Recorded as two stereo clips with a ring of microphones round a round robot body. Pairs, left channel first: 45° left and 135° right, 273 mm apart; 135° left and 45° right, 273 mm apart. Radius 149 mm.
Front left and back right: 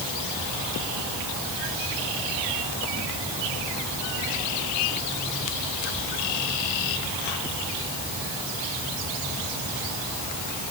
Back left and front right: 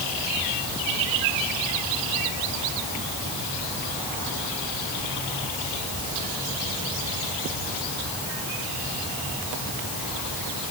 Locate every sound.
Only background noise.